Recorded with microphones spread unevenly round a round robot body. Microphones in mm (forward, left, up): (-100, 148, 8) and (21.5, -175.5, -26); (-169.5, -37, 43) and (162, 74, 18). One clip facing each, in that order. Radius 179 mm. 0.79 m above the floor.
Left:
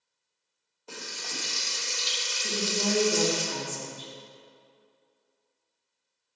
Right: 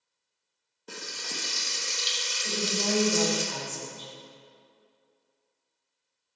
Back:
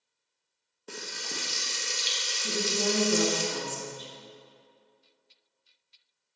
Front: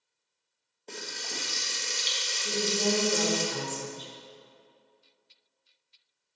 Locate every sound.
0.9 s frying: 95° right, 1.1 m
2.4 s a woman speaking: 165° left, 1.9 m